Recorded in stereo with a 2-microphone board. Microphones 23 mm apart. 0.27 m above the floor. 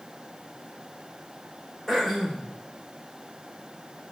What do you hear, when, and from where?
1.9 s throat clearing: centre (ahead or behind), 5 m